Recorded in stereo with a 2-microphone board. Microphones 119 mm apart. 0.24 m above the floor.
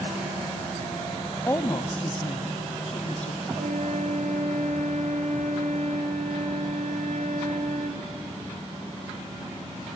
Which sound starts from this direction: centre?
A woman speaking, at 1.5 s.